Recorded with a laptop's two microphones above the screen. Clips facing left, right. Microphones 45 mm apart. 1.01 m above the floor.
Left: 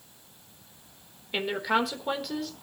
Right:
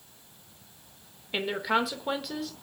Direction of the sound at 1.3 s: Centre (ahead or behind).